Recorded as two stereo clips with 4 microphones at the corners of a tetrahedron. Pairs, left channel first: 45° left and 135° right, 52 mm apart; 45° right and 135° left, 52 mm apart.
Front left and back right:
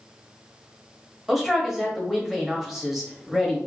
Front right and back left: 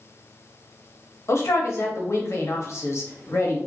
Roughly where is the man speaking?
Ahead right.